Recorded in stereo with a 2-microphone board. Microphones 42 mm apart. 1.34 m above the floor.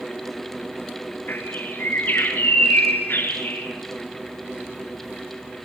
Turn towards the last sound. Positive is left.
turn(degrees=55)  # may be behind; listen again after turning